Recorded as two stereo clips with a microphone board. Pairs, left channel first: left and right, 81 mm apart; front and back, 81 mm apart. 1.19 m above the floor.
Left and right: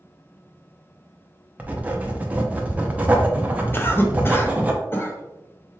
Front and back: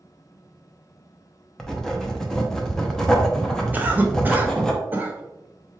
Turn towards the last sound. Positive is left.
turn(degrees=130)